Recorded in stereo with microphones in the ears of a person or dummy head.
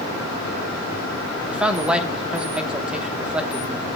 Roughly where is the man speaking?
Centre.